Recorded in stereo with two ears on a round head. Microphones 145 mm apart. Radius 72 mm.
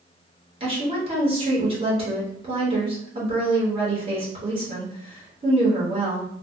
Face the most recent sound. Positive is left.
turn(degrees=-30)  # may be behind; listen again after turning